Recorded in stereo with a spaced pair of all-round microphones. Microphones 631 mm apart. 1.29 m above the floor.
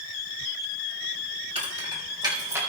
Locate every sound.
1.6 s keys jangling: 10° right (ahead or behind), 4.5 m; by 2.6 s 5° right (ahead or behind), 4 m